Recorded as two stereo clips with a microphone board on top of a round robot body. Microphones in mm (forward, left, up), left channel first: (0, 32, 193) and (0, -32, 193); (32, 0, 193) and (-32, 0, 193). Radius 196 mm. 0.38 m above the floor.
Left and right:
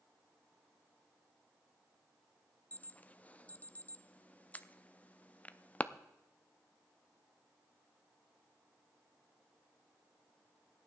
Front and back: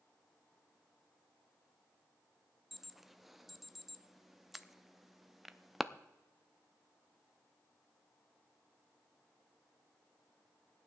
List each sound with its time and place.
2.7 s an alarm: 95° left, 0.9 m